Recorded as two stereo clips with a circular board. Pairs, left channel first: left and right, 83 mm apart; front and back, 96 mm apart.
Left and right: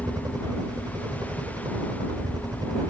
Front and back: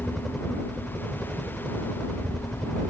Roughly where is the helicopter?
Right.